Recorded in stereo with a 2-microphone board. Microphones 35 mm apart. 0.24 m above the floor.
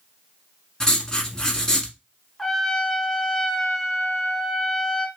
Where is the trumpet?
10° left (ahead or behind), 0.8 m.